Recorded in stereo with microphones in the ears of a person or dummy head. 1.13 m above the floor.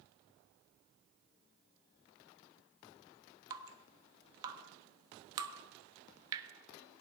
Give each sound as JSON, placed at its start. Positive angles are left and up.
{"t": 3.5, "sound": "dripping", "side_deg": -15, "distance_m": 1.0}